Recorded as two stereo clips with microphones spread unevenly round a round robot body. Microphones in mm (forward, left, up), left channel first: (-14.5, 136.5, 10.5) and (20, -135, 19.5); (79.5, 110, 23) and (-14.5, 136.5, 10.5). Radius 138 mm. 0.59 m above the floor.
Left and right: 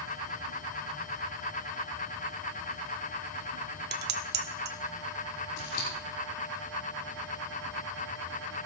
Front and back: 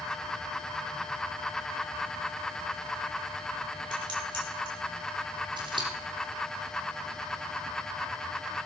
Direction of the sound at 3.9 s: 140° right.